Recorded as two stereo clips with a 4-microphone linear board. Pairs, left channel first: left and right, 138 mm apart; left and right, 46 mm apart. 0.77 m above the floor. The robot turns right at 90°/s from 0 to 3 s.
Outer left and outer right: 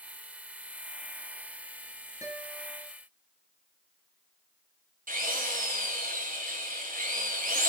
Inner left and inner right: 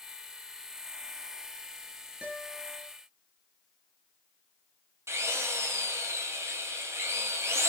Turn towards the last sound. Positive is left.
turn(degrees=-85)